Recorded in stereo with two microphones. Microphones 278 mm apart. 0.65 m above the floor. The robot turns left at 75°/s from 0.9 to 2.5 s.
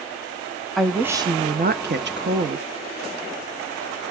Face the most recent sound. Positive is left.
turn(degrees=-120)